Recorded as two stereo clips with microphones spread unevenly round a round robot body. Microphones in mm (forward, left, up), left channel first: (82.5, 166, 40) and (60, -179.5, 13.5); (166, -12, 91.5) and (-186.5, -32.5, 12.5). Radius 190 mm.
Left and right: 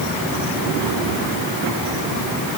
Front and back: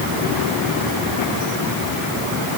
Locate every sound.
Only background noise.